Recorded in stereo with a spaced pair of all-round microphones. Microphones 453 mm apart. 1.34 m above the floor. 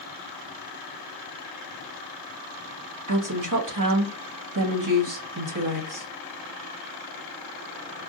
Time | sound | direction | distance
3.1 | a woman speaking | 45° right (ahead or behind) | 1.5 m